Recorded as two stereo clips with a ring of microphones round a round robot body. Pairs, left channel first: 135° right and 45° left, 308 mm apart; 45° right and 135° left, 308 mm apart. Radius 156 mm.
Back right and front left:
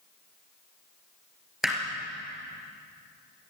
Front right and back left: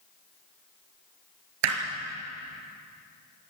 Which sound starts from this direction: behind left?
Hammering, at 1.6 s.